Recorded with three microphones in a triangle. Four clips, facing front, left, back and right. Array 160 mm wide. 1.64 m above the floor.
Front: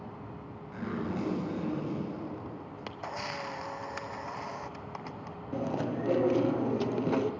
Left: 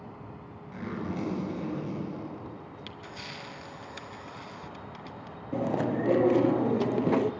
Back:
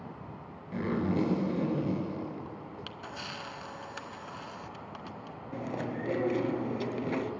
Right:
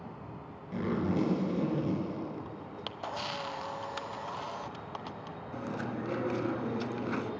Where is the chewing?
75° left, 0.7 m.